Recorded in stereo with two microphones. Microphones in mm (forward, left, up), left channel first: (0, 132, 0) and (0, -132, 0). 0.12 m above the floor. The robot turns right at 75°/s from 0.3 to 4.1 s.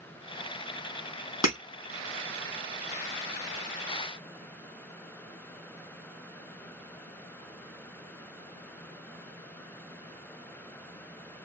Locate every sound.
1.4 s breaking glass: 70° left (ahead or behind), 2.5 m